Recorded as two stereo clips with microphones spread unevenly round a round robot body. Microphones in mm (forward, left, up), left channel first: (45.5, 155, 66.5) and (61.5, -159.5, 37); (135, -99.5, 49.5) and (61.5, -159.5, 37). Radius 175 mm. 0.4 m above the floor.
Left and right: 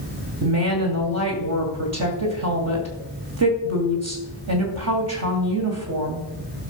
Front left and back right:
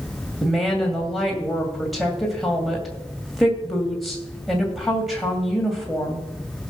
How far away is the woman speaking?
About 2.5 m.